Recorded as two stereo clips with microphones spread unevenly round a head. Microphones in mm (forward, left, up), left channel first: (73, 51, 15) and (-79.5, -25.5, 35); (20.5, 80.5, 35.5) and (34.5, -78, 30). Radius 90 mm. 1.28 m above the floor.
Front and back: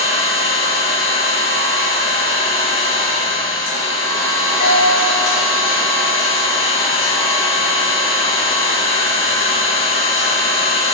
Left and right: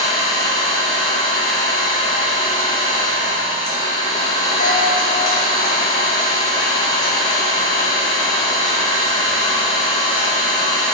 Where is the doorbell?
60° left, 1.1 m.